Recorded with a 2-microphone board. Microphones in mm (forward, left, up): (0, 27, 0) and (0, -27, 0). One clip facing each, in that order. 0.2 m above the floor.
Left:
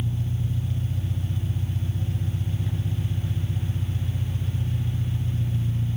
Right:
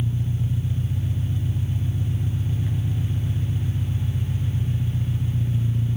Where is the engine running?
15° right (ahead or behind), 2.5 m.